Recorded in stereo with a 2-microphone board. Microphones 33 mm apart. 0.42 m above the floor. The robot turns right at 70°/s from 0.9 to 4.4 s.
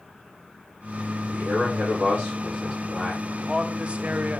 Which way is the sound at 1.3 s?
115° right.